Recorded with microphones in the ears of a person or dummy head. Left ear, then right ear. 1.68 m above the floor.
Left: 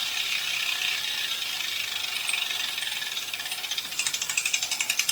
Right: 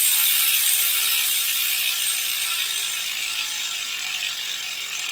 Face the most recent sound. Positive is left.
No sound to turn to.